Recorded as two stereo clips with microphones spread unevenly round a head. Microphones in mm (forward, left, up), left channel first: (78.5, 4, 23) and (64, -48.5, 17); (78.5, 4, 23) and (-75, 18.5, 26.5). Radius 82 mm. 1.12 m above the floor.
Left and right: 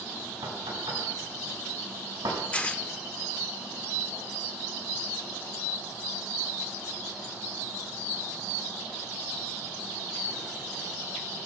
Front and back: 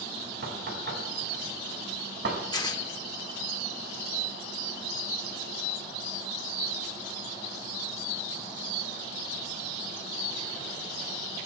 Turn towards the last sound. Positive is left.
turn(degrees=45)